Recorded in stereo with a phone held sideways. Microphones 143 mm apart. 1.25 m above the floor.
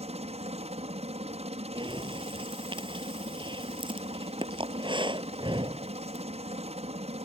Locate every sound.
0.0 s a helicopter: 45° right (ahead or behind)
1.8 s breathing: 35° right (ahead or behind)